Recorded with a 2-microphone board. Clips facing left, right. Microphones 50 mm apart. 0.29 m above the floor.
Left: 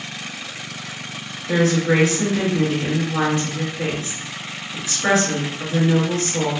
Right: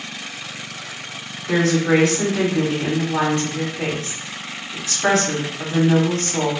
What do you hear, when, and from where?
1.5 s a woman speaking: 45° right (ahead or behind), 1.8 m